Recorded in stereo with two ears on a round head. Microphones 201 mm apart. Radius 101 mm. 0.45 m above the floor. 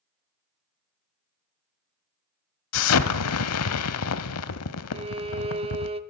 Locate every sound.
2.7 s an explosion: 75° left (ahead or behind), 0.7 m
4.9 s a violin: 25° right (ahead or behind), 0.7 m